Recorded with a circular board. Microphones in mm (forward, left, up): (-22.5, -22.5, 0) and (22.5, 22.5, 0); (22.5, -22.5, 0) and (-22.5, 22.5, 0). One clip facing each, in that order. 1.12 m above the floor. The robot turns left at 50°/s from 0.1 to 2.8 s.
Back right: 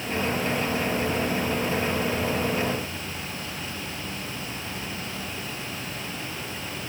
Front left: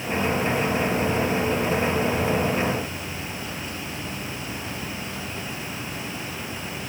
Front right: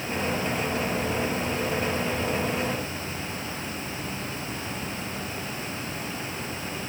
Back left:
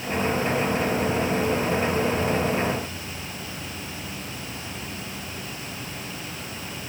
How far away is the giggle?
I don't hear a giggle.